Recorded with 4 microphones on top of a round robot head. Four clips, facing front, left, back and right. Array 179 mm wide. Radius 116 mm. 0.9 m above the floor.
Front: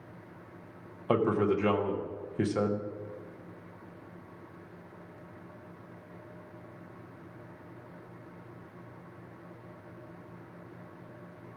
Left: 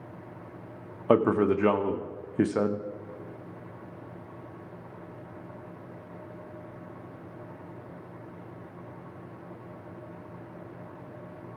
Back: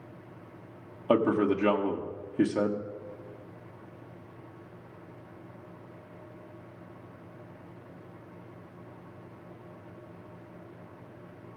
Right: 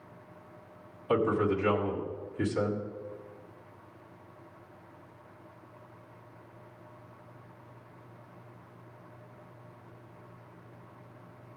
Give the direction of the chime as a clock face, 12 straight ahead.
I don't hear a chime.